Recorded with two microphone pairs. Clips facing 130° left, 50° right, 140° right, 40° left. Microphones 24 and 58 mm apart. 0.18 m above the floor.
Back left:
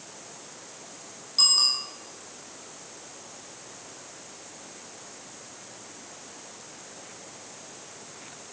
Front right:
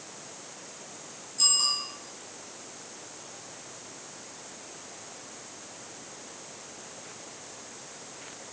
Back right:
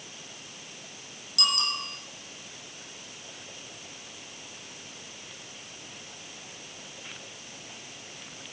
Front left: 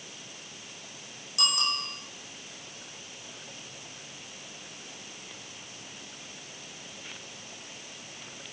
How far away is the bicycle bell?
About 5.5 m.